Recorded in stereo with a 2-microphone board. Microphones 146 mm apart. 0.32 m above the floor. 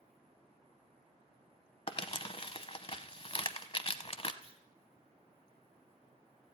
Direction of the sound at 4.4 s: 40° right (ahead or behind).